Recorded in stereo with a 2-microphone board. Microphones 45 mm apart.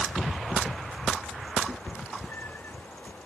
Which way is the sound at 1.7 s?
55° left (ahead or behind).